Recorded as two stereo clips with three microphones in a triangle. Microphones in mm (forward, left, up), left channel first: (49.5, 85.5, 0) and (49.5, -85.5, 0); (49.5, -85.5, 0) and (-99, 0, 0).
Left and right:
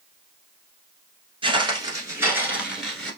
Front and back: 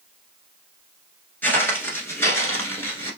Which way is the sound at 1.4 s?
100° right.